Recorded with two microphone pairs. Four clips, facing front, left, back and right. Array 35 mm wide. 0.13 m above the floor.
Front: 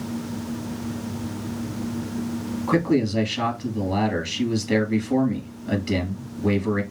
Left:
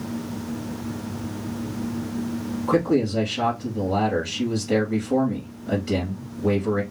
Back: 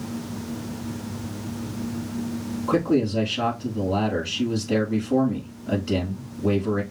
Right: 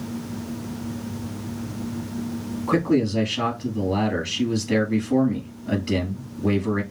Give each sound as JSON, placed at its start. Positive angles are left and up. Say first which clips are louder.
{"t": 2.7, "sound": "a man speaking", "louder": "even, even", "azimuth_deg": -10, "distance_m": 2.5}